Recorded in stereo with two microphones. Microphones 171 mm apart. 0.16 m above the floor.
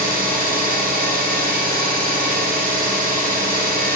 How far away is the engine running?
About 1.8 m.